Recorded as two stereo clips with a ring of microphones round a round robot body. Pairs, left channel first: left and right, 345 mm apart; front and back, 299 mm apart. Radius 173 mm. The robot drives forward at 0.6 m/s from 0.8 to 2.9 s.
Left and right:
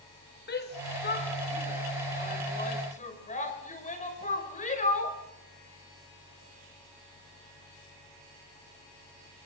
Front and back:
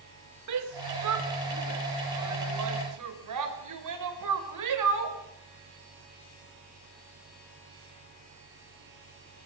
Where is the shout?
155° left, 3.5 m; by 5.2 s 160° left, 4.5 m.